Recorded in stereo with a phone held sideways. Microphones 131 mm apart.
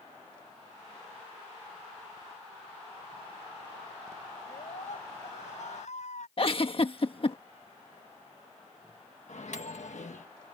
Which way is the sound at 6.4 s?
50° left (ahead or behind).